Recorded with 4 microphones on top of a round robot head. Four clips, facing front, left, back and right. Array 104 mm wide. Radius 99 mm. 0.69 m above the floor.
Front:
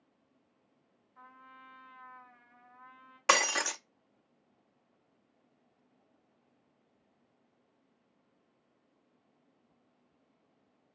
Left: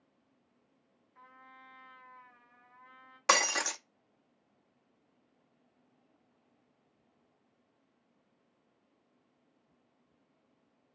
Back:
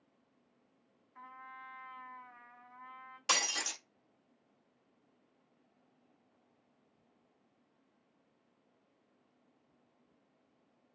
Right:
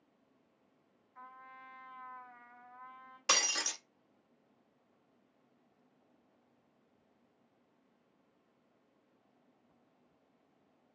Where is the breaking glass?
40° left, 0.7 m.